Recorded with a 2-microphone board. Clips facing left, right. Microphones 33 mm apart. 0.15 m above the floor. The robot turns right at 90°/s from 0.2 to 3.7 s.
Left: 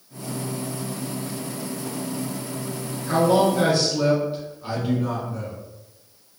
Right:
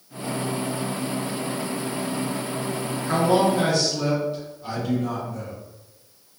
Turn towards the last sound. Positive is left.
turn(degrees=55)